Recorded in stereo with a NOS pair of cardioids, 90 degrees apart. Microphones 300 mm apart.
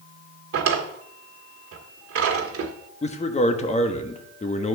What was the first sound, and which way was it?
A drawer, 50° right.